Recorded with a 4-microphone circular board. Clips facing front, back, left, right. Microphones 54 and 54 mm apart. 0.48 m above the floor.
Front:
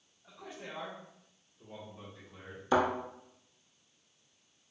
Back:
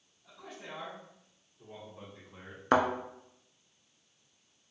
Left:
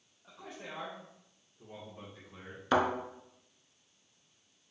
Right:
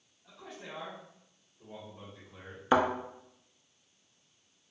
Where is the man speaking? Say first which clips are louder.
Front 1 dB, even; 60° left, 1.7 m; by 2.6 s 165° left, 1.8 m.